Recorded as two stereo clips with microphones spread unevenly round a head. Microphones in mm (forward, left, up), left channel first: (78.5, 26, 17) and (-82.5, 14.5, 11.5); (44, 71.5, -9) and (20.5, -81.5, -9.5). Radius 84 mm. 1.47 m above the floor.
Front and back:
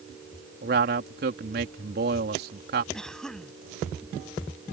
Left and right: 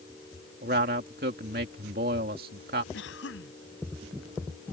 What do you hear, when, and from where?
0.6 s a man speaking: 140° right
2.9 s a cough: 90° left